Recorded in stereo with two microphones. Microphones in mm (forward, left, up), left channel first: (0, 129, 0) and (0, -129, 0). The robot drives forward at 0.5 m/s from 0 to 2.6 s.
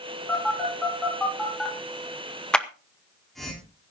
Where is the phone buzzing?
Centre (ahead or behind), 6 m.